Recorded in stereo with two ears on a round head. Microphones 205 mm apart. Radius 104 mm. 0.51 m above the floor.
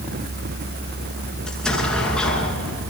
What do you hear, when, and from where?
1.5 s an explosion: 5° left (ahead or behind), 7 m